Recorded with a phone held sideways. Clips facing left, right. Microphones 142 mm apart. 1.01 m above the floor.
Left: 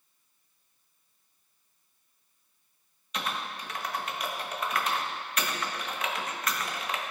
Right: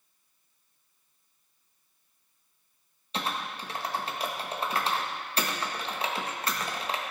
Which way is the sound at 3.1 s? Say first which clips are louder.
Right 1 dB; 30° right (ahead or behind).